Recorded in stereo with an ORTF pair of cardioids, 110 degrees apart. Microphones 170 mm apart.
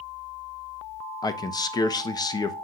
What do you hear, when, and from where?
1.2 s a man speaking: 25° left, 1.1 m